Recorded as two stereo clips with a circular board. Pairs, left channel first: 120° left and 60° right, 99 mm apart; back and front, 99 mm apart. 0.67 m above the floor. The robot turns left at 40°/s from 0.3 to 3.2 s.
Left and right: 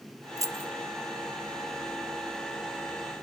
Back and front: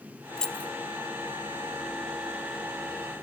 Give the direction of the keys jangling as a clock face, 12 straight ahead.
3 o'clock.